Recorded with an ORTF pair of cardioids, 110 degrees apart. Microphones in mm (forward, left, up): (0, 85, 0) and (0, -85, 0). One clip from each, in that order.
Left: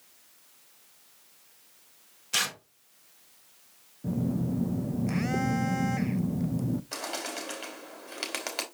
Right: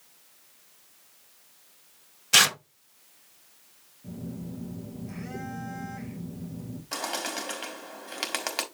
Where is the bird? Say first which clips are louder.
Right 3 dB; 15° right, 2.5 m.